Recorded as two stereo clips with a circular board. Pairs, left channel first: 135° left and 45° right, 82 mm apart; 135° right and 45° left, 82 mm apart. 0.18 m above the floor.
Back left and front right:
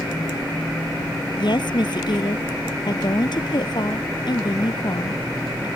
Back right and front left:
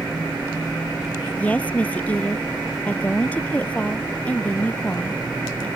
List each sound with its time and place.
1.4 s a woman speaking: 155° left